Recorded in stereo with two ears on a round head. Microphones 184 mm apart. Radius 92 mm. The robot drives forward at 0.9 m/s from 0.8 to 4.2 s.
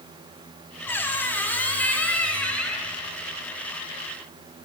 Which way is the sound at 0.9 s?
10° left (ahead or behind).